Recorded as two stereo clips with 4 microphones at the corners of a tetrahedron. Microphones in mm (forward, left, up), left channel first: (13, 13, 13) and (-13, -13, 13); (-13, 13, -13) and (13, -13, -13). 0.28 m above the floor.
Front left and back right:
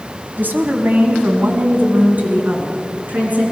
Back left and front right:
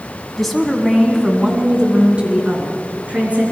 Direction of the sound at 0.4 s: 140° right.